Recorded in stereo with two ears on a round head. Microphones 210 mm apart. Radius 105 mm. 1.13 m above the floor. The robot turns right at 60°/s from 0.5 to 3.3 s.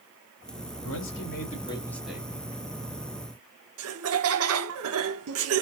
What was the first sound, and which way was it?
A man speaking, 105° left.